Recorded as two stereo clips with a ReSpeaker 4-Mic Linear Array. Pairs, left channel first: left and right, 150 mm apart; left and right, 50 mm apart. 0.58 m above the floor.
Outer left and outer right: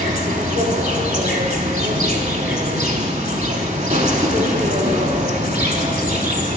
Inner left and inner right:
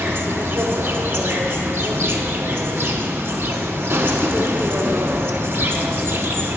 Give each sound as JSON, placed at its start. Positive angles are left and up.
{"t": 0.0, "sound": "an insect", "side_deg": -55, "distance_m": 0.7}